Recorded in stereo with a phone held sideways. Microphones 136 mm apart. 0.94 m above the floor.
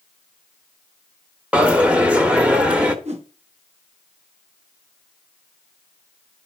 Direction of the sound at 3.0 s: 55° right (ahead or behind).